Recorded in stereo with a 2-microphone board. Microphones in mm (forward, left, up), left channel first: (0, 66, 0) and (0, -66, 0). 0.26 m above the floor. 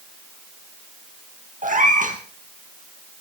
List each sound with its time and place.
1.6 s a cat meowing: 80° right, 3.5 m